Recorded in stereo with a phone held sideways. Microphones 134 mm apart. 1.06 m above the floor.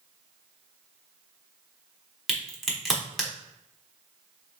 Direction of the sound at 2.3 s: Centre (ahead or behind).